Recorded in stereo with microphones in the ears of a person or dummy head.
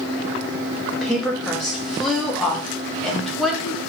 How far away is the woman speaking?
About 0.8 m.